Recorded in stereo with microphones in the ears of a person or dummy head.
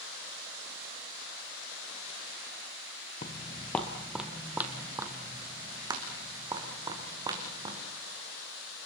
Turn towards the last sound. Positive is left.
turn(degrees=-25)  # may be behind; listen again after turning